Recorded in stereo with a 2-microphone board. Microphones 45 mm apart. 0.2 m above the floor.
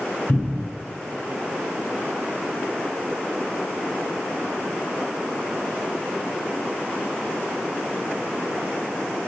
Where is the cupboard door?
45° left (ahead or behind), 0.9 m.